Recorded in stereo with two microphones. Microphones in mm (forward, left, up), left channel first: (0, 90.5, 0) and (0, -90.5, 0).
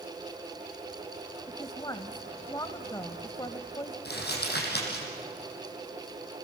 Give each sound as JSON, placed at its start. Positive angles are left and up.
{"t": 1.5, "sound": "a woman speaking", "side_deg": 20, "distance_m": 0.9}
{"t": 4.0, "sound": "crumpling", "side_deg": 65, "distance_m": 5.5}